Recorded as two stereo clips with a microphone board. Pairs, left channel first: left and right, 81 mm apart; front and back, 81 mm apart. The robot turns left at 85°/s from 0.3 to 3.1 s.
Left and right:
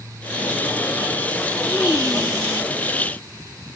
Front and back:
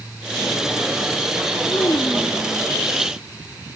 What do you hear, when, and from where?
1.7 s a child speaking: 15° left, 0.7 m; by 2.7 s 70° right, 0.7 m